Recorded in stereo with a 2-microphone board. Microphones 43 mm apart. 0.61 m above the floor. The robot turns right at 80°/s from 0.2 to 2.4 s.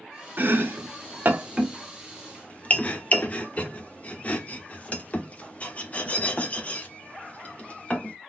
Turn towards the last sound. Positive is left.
turn(degrees=30)  # may be behind; listen again after turning